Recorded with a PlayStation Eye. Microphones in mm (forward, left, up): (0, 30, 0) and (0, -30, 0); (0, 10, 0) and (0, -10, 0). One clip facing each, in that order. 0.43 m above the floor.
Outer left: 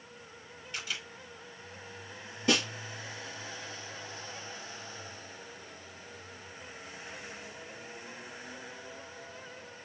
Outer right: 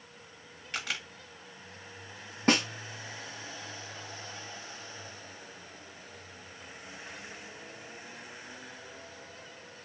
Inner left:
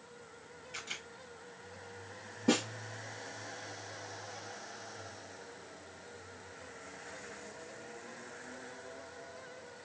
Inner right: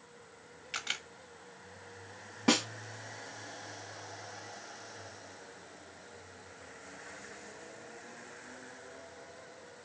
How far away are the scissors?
No scissors in this recording.